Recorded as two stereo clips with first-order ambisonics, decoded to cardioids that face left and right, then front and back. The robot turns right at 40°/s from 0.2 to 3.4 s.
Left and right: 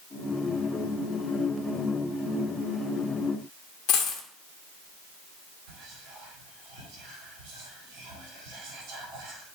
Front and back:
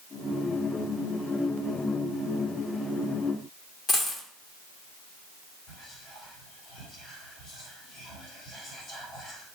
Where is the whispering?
60° right, 1.6 m.